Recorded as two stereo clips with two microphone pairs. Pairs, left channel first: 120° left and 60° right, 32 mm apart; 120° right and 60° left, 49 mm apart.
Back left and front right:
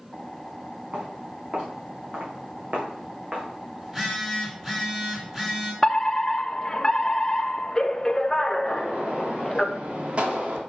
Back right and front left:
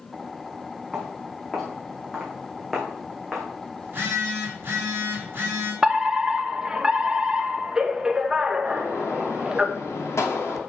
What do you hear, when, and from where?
0.9 s footsteps: 30° right, 6 m; by 3.5 s 25° right, 3.5 m
3.8 s a phone buzzing: 15° left, 5 m
5.8 s a fire alarm: 120° left, 1.0 m
8.7 s a gunshot: 105° right, 2.5 m